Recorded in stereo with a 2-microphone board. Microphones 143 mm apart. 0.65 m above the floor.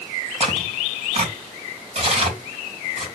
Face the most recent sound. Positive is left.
turn(degrees=-45)  # may be behind; listen again after turning